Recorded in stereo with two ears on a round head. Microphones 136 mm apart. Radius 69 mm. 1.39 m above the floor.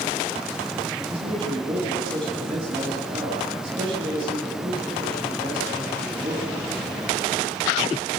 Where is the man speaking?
35° right (ahead or behind), 8.5 m.